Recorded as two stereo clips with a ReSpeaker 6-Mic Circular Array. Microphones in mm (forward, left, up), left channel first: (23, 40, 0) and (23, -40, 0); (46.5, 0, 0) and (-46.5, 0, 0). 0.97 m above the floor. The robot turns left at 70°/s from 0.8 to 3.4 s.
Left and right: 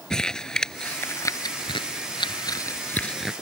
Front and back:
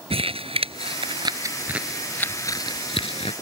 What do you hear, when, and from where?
0.1 s crumpling: 170° left; by 3.3 s 5° right